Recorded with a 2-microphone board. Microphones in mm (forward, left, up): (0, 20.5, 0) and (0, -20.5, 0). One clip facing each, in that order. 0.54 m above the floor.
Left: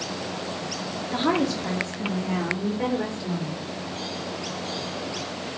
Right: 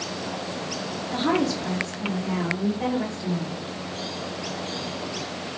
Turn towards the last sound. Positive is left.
turn(degrees=45)  # may be behind; listen again after turning